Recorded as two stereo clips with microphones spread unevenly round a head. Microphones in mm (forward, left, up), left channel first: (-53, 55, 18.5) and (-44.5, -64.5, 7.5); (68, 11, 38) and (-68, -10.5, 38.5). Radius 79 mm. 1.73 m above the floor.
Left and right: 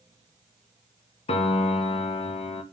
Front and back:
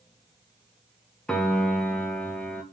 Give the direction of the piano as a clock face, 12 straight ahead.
9 o'clock.